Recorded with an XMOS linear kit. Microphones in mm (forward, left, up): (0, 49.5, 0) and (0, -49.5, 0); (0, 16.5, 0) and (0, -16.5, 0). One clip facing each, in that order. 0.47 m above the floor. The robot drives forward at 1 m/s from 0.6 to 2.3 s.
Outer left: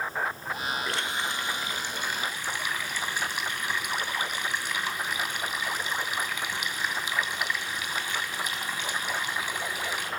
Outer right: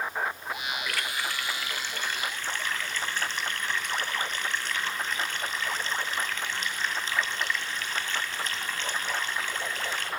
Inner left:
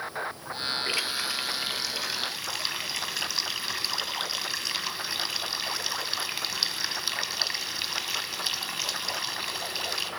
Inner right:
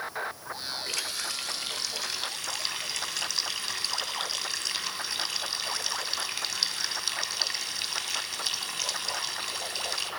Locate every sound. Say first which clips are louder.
0.9 s a running tap: outer left 2 dB, inner left 3 dB; 30° left (ahead or behind), 1.0 m; by 10.1 s 10° left (ahead or behind), 2 m